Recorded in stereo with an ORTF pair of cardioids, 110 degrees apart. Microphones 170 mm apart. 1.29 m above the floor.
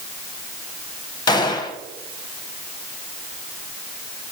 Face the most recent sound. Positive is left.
turn(degrees=25)